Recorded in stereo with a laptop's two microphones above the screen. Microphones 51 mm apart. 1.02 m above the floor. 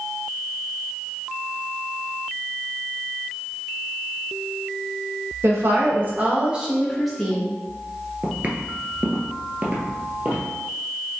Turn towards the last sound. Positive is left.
turn(degrees=-30)  # may be behind; listen again after turning